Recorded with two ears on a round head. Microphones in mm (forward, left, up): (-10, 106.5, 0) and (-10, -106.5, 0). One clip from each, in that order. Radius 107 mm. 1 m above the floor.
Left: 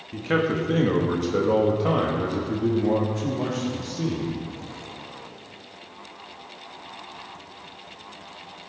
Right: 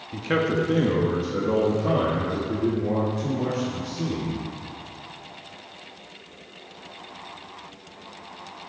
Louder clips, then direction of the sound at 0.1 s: Even; 5° right (ahead or behind).